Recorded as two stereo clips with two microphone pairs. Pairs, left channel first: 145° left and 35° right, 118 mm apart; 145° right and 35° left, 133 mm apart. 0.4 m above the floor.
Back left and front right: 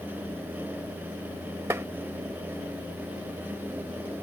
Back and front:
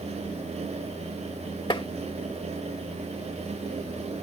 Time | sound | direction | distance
1.7 | tapping | 100° right | ?